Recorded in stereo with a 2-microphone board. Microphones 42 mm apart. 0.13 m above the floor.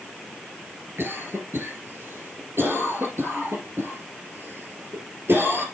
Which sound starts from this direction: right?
A cough, at 1.0 s.